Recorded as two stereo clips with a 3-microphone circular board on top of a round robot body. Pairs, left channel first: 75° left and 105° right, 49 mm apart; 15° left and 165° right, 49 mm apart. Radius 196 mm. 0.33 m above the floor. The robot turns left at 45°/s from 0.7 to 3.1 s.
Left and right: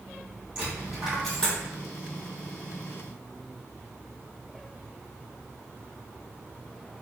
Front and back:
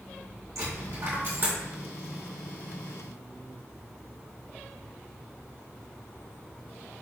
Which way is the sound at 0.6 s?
175° right.